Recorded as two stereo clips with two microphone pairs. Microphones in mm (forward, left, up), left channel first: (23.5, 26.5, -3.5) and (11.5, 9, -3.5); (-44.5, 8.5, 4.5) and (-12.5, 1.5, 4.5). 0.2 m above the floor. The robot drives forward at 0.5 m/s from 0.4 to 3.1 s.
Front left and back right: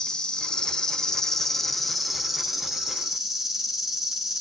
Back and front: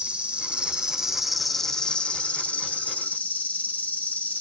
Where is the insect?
25° left, 0.7 m; by 4.4 s 165° left, 1.0 m.